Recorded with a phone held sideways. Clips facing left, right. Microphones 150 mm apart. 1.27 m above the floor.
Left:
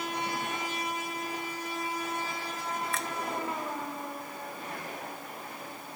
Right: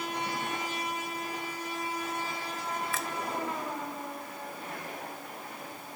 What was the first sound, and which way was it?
A finger snap, centre (ahead or behind).